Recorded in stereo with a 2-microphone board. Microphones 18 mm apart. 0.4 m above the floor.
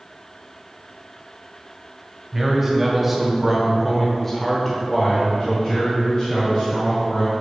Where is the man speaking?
15° right (ahead or behind), 1.7 m; by 7.3 s 20° left (ahead or behind), 3 m.